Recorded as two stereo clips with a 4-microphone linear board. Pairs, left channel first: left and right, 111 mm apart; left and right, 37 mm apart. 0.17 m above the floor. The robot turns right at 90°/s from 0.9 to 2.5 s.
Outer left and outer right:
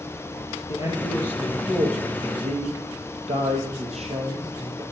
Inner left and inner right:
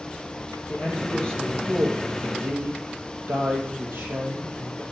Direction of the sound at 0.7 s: 125° left.